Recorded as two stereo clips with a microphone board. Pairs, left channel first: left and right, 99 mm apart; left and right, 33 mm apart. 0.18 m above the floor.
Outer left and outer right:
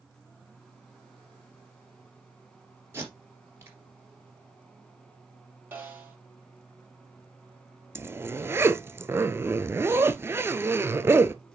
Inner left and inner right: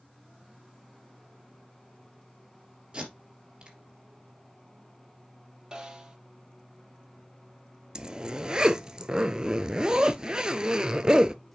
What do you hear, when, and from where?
2.9 s tape being pulled: 25° right (ahead or behind), 3 m
5.7 s a snare drum: 20° right (ahead or behind), 2 m
8.0 s a zipper: 25° right (ahead or behind), 0.5 m